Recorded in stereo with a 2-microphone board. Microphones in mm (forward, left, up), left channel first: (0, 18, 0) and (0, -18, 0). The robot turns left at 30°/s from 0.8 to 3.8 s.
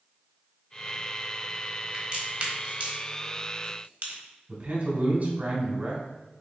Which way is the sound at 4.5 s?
55° right (ahead or behind).